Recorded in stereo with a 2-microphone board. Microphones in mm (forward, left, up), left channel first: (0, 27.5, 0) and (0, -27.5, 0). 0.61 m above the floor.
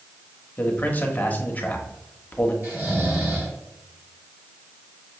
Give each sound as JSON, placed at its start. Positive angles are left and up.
{"t": 0.6, "sound": "a man speaking", "side_deg": 30, "distance_m": 0.9}
{"t": 2.6, "sound": "snoring", "side_deg": -40, "distance_m": 1.9}